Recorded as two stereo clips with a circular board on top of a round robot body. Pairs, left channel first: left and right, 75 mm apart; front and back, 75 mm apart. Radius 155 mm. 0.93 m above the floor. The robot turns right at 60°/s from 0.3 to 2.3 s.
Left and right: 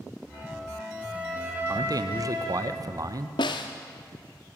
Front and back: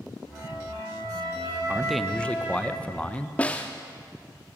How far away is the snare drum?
About 0.5 m.